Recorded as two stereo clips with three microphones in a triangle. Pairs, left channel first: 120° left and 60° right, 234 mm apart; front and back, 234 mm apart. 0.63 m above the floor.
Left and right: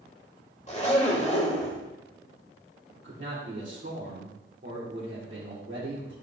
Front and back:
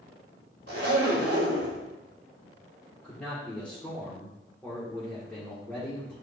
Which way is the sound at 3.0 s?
85° right.